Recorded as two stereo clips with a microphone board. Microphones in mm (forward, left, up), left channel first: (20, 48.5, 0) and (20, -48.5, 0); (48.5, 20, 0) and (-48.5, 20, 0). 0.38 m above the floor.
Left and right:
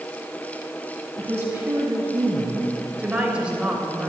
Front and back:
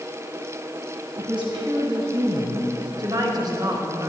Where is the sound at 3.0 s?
165° right, 1.7 m.